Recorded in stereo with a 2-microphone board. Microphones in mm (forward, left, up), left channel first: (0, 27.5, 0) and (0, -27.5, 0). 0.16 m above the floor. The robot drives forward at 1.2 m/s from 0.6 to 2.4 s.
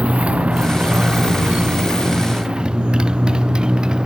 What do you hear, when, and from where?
0.0 s a motorcycle: 20° right (ahead or behind); by 4.1 s 15° right (ahead or behind)